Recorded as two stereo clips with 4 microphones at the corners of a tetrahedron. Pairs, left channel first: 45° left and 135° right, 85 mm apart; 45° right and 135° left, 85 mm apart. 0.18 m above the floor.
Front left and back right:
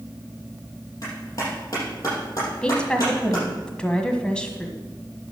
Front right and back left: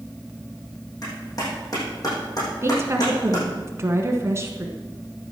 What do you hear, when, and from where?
1.0 s a clap: 5° right, 6 m
2.6 s a woman speaking: 115° left, 1.5 m